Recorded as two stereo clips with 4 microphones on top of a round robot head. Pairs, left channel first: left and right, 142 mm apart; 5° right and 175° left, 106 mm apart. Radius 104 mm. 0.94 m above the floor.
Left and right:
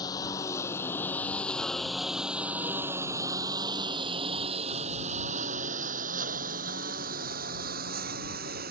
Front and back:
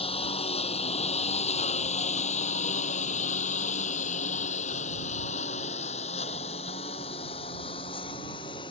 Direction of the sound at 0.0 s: 20° left.